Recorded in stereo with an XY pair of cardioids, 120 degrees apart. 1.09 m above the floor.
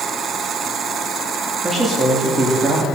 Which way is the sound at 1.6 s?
15° right.